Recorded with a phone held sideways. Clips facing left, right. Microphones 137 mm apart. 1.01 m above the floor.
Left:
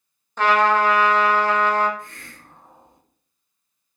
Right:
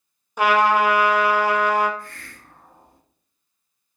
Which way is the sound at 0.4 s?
10° right (ahead or behind).